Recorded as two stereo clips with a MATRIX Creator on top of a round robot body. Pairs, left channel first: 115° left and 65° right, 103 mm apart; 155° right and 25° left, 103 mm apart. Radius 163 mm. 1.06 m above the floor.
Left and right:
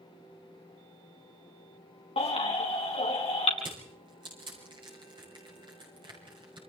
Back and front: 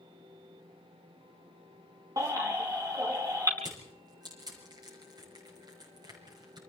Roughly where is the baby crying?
Left.